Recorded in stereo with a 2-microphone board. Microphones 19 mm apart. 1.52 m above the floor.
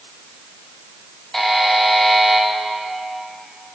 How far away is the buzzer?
About 1.0 m.